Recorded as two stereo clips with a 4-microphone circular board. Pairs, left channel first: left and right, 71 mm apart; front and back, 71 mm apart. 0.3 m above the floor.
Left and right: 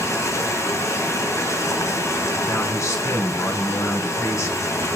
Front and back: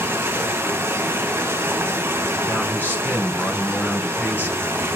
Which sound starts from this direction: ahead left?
A man speaking, at 2.5 s.